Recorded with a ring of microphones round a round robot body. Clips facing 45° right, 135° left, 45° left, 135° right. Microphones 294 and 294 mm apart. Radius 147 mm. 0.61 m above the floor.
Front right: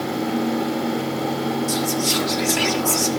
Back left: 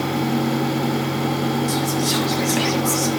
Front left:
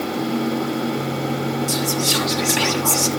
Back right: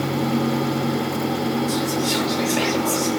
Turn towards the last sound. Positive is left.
turn(degrees=50)